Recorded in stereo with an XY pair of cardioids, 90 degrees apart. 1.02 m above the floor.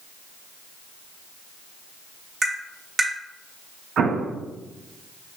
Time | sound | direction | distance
2.4 | tapping | 50° right | 1.8 m
4.0 | an explosion | 65° right | 0.6 m